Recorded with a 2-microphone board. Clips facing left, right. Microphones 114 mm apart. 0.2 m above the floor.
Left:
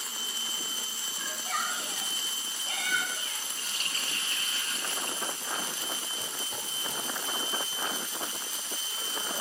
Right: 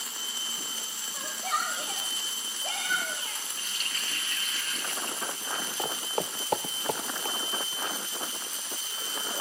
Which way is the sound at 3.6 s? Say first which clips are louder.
Left 1 dB; 35° left (ahead or behind).